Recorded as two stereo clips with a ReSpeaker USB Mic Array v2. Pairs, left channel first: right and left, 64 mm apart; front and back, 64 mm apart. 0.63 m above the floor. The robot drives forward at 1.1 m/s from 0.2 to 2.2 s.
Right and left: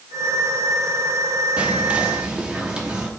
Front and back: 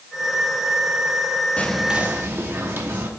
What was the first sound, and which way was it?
Whispering, 40° left.